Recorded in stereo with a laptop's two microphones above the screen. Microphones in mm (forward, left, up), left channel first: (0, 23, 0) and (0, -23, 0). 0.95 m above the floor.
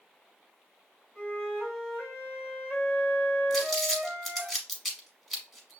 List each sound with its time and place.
1.1 s a flute: 45° left (ahead or behind), 3 m
3.5 s crumpling: centre (ahead or behind), 1.1 m